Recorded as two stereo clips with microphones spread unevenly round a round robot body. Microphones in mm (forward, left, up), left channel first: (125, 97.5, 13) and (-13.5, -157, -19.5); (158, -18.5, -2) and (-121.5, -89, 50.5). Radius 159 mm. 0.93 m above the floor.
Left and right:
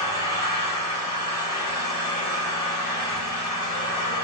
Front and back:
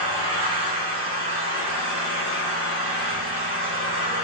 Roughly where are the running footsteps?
I don't hear running footsteps.